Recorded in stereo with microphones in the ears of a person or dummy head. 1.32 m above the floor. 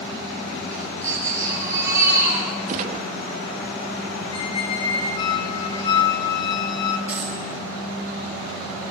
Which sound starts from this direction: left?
A squeak, at 4.3 s.